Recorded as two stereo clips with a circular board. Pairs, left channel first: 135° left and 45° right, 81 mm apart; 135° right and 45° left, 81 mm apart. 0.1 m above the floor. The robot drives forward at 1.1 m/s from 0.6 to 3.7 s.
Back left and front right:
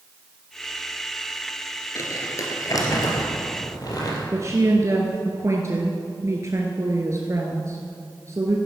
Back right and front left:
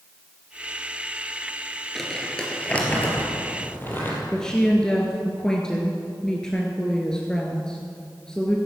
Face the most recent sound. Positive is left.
turn(degrees=-60)